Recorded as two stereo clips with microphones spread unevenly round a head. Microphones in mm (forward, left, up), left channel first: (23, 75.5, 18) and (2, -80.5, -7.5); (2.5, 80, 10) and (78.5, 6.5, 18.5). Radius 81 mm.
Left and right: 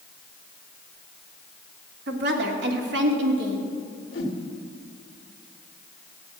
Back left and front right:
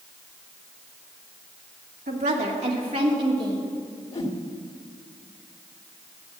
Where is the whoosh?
115° left, 1.9 m.